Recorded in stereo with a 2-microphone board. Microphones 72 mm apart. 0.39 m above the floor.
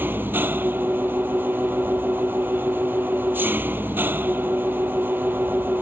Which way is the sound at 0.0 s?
25° right (ahead or behind).